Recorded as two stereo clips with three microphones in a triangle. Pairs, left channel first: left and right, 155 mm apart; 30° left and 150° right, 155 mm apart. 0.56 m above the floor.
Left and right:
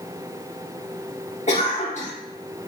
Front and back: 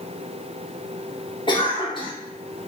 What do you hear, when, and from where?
1.5 s a cough: 80° left, 0.9 m